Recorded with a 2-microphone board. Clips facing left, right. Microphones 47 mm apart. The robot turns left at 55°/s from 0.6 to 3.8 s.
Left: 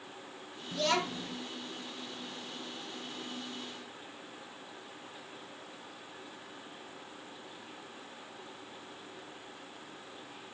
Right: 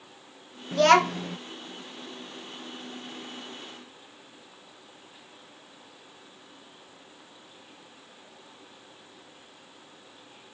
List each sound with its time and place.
0.7 s a child speaking: 55° right, 0.6 m; by 1.4 s 95° right, 0.6 m